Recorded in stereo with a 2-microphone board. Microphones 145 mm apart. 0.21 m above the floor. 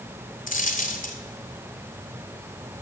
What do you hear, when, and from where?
0.5 s a dropped coin: 65° left (ahead or behind), 1.3 m